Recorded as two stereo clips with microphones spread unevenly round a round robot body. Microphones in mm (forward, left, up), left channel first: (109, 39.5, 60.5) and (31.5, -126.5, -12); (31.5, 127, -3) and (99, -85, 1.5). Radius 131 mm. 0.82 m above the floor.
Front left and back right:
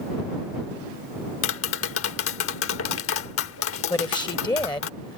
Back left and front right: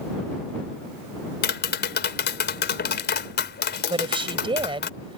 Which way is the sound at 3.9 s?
5° right.